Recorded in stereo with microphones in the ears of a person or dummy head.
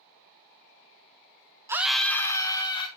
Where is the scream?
5° right (ahead or behind), 0.6 m; by 2.9 s 35° left (ahead or behind), 1.3 m.